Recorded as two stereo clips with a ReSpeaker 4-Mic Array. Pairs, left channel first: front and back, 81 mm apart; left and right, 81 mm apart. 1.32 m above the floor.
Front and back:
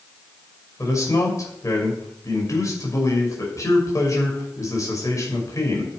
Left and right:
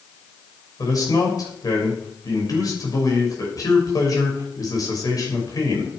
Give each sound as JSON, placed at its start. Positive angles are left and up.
{"t": 0.8, "sound": "a man speaking", "azimuth_deg": 50, "distance_m": 6.0}